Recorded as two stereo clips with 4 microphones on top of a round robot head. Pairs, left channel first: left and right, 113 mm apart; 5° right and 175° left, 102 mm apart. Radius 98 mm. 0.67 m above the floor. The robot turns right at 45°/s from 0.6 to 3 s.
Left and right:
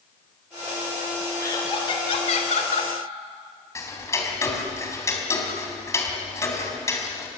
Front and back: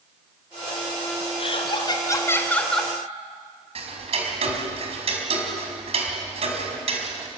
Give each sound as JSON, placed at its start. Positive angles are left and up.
{"t": 1.4, "sound": "laughter", "azimuth_deg": 20, "distance_m": 3.5}
{"t": 3.8, "sound": "ticking", "azimuth_deg": 155, "distance_m": 4.0}